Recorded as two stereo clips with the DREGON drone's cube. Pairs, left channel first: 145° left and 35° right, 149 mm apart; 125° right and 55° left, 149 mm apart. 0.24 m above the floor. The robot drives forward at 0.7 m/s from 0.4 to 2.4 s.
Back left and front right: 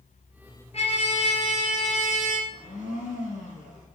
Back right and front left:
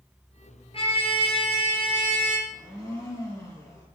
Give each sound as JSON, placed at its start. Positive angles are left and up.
{"t": 0.7, "sound": "a trumpet", "azimuth_deg": -170, "distance_m": 2.5}
{"t": 2.5, "sound": "a blender", "azimuth_deg": 170, "distance_m": 3.5}